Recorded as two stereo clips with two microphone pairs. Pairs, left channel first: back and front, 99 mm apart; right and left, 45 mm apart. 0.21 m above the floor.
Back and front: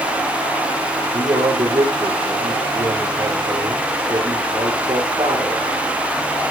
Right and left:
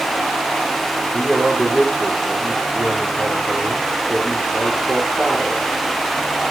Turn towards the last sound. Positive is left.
turn(degrees=35)